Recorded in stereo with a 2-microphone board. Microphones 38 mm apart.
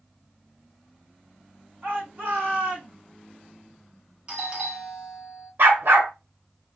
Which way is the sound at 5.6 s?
75° right (ahead or behind).